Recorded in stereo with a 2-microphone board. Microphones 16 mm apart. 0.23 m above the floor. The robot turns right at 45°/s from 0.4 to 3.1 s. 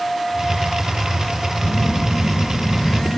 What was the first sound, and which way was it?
A phone buzzing, 20° right.